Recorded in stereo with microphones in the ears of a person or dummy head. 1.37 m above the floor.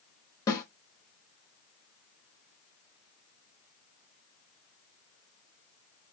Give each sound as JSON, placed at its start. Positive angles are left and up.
{"t": 0.5, "sound": "a snare drum", "side_deg": 20, "distance_m": 1.0}